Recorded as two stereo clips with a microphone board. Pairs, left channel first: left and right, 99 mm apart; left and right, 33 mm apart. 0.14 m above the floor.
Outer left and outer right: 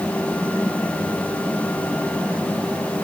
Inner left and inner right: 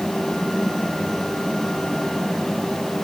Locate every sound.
Only background noise.